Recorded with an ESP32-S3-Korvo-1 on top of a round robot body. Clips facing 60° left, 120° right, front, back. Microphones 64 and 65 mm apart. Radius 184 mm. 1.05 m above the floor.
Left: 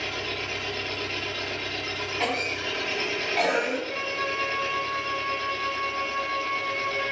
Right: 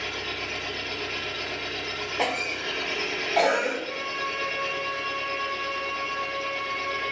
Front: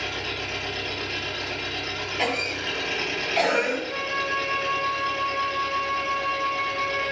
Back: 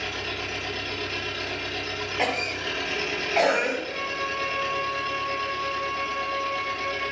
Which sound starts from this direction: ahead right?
An engine running, at 0.0 s.